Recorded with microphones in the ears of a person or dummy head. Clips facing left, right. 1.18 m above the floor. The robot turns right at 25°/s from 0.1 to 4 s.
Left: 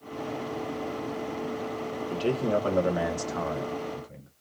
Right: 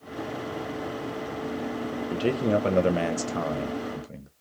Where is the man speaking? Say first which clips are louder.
Right 2 dB; 160° right, 0.5 m; by 4.3 s 115° right, 0.5 m.